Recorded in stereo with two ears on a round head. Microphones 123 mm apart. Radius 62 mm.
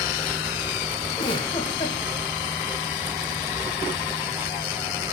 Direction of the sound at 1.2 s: 35° left (ahead or behind).